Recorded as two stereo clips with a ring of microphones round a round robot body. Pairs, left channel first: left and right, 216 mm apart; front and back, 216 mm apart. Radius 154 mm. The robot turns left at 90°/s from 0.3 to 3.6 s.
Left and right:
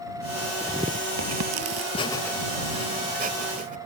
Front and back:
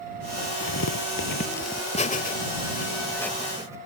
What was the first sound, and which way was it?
Tearing paper, 5° left.